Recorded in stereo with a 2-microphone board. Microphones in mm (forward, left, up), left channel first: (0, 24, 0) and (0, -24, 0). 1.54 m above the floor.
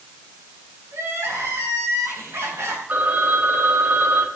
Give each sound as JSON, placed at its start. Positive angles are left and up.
{"t": 0.9, "sound": "crying", "side_deg": -70, "distance_m": 8.0}
{"t": 2.9, "sound": "a phone ringing", "side_deg": -45, "distance_m": 4.5}